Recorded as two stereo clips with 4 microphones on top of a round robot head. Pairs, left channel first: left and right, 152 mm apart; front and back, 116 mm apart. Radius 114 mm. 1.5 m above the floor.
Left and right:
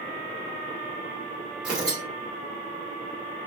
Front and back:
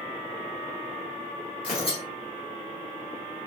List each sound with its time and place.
1.6 s tearing paper: 10° right, 0.9 m